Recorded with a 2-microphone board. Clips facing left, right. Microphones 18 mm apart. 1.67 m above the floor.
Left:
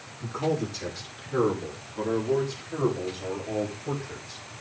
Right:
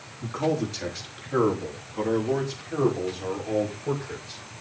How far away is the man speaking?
About 3.5 m.